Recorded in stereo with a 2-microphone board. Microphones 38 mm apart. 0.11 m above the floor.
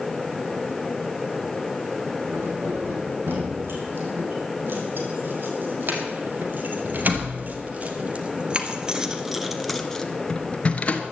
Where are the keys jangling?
65° right (ahead or behind), 5 m; by 11.0 s 40° left (ahead or behind), 1.4 m.